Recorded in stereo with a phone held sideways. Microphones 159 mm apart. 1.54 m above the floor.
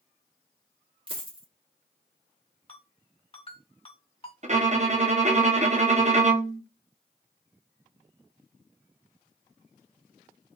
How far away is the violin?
About 0.6 m.